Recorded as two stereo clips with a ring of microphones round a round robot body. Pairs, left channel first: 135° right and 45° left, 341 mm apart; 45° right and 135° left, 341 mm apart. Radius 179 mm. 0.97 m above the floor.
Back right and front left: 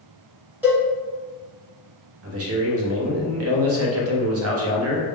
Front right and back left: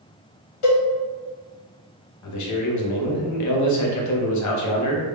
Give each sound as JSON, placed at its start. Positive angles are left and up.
{"t": 0.6, "sound": "a cowbell", "azimuth_deg": -40, "distance_m": 1.7}
{"t": 2.2, "sound": "a man speaking", "azimuth_deg": -5, "distance_m": 0.7}